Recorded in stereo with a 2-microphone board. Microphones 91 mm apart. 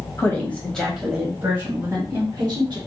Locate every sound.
0.2 s a woman speaking: 25° left (ahead or behind), 1.2 m; by 2.8 s 50° right (ahead or behind), 1.8 m